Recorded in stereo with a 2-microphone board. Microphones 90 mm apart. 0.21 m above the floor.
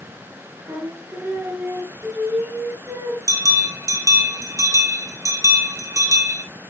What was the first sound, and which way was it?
Singing, 20° right (ahead or behind).